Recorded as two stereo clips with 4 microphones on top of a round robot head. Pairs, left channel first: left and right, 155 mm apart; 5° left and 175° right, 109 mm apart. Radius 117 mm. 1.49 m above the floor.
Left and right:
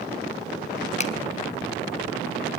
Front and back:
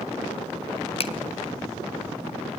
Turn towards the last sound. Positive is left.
turn(degrees=40)